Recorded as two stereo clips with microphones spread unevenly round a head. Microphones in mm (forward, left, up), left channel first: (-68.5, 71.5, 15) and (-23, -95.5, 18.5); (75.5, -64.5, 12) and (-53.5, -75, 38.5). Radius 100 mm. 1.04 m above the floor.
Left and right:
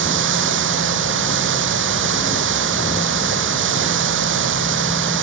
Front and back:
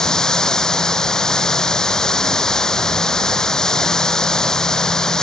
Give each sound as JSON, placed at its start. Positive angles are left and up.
{"t": 0.0, "sound": "running water", "azimuth_deg": -80}